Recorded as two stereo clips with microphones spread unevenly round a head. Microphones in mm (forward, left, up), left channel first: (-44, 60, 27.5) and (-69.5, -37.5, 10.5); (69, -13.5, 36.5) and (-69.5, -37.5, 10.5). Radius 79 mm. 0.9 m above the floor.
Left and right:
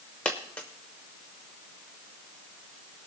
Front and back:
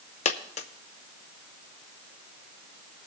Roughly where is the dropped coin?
Ahead.